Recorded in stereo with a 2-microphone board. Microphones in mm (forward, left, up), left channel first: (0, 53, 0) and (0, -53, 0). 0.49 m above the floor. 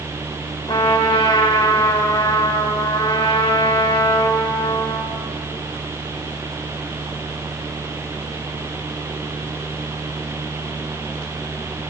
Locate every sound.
0.7 s a trumpet: 55° left (ahead or behind), 1.4 m